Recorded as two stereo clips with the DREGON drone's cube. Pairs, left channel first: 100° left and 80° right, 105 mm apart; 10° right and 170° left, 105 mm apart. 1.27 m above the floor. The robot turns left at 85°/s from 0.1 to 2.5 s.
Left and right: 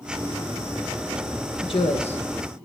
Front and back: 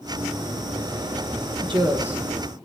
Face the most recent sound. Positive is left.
turn(degrees=65)